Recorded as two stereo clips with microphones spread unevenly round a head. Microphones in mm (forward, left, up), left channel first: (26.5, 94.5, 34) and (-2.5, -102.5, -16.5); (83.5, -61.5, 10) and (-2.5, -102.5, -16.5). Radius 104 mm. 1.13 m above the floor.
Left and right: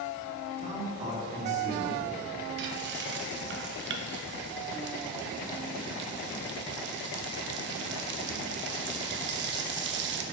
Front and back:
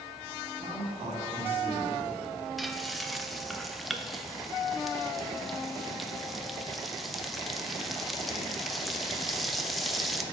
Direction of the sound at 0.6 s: 155° right.